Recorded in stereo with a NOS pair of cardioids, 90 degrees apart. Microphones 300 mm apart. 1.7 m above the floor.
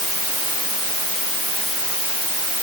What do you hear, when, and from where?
Only background noise.